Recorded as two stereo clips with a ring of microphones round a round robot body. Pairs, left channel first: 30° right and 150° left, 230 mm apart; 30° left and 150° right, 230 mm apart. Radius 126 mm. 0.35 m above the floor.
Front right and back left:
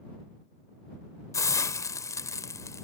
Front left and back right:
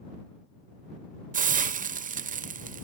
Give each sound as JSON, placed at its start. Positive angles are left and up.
{"t": 1.3, "sound": "a hiss", "azimuth_deg": -105}